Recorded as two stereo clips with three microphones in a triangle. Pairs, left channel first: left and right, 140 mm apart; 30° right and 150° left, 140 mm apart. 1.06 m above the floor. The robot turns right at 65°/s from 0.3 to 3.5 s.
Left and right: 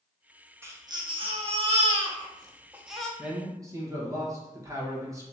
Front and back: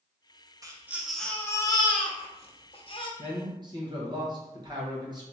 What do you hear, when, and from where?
0.6 s a baby crying: 155° right, 0.5 m; by 3.1 s 5° left, 0.5 m
3.2 s a man speaking: 175° right, 1.1 m; by 5.2 s 155° right, 1.1 m